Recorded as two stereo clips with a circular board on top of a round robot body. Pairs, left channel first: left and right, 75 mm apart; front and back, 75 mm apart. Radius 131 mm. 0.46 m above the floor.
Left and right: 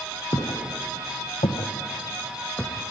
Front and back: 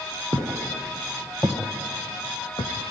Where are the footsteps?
125° left, 3 m; by 2.7 s 10° left, 1.7 m.